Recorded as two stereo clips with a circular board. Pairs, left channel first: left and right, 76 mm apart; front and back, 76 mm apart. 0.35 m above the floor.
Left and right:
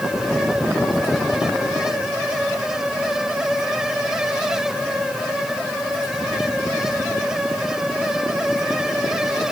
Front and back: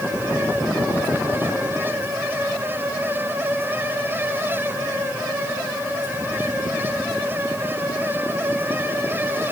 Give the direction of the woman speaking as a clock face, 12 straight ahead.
No woman speaking in this recording.